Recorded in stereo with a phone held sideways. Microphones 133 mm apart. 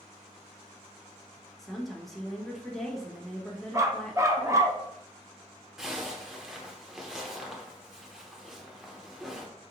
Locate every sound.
1.6 s a woman speaking: centre (ahead or behind), 0.8 m
3.7 s a dog barking: 20° right (ahead or behind), 0.5 m
5.8 s a zipper: 5° right (ahead or behind), 0.7 m